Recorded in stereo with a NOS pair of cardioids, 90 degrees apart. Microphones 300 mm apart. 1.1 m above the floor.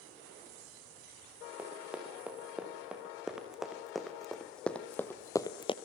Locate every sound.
1.6 s running footsteps: 5° right, 7 m; by 5.8 s 25° left, 1.4 m